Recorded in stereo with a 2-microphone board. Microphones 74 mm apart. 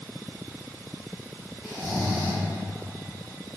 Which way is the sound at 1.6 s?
20° right (ahead or behind).